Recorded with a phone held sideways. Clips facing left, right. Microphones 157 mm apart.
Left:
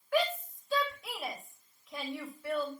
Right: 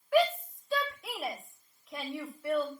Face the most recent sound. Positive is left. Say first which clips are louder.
# right 5 dB
turn(degrees=-10)  # may be behind; listen again after turning